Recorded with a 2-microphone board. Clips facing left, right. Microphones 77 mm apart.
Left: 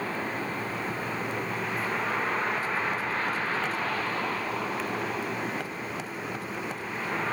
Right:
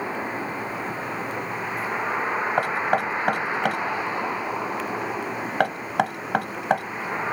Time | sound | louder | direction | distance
0.0 | a vehicle | right 3 dB | 15° right (ahead or behind) | ?
2.6 | knocking | right 7 dB | 80° right | ?